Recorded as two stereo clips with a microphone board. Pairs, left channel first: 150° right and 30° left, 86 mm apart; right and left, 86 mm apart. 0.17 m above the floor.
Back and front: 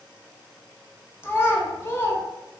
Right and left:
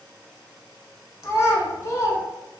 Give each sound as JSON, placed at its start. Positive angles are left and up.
{"t": 1.2, "sound": "a child speaking", "azimuth_deg": -110, "distance_m": 0.7}